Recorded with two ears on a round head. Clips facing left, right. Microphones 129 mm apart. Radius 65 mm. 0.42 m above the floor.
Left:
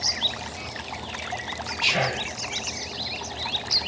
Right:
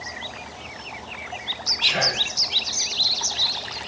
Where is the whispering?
5° left (ahead or behind), 1.5 m.